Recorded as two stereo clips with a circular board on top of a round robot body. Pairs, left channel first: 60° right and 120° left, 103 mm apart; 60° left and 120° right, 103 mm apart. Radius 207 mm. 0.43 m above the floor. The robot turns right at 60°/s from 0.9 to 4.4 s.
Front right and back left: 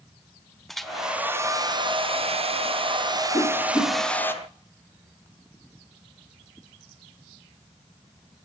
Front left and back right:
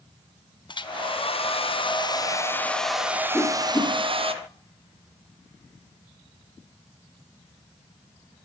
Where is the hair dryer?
30° left, 1.4 m; by 4.3 s 125° right, 1.4 m.